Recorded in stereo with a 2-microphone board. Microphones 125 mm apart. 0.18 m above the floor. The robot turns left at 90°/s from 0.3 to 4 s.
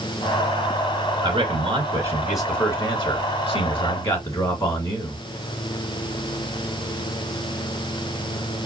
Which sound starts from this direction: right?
A man speaking, at 1.2 s.